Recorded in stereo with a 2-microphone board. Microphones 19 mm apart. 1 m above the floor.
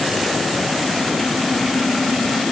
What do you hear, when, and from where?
Only background noise.